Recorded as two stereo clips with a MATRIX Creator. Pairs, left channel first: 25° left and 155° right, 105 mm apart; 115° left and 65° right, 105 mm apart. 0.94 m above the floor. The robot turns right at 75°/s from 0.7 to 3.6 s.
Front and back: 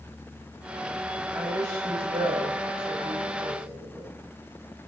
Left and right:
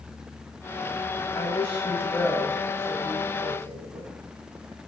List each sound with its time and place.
1.3 s a woman speaking: 130° left, 5 m; by 4.1 s 60° right, 5 m